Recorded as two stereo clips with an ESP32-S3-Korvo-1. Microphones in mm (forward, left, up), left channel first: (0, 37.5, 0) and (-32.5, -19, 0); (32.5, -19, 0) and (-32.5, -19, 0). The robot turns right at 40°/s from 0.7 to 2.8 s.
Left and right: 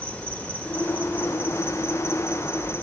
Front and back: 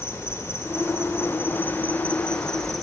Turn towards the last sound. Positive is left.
turn(degrees=85)